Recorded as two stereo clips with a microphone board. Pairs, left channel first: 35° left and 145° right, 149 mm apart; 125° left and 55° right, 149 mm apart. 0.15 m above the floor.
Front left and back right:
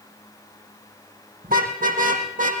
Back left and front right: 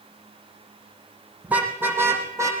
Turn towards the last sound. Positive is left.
turn(degrees=-125)